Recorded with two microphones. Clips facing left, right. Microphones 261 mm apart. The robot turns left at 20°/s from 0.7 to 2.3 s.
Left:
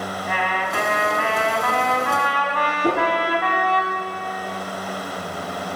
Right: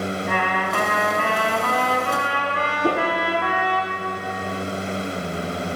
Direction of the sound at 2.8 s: 10° right (ahead or behind).